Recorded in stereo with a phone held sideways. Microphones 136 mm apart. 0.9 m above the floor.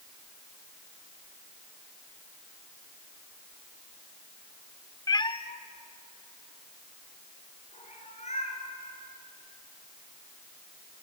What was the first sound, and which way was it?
A cat meowing, 25° left (ahead or behind).